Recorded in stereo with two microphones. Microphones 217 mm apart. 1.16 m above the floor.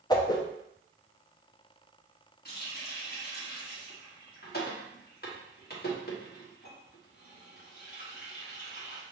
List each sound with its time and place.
0.1 s a whoosh: 20° left (ahead or behind), 0.6 m
2.5 s a running tap: 50° left (ahead or behind), 1.4 m